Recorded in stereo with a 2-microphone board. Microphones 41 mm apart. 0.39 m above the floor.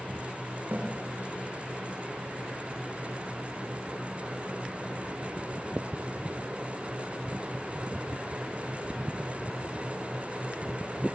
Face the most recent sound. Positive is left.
turn(degrees=-45)  # may be behind; listen again after turning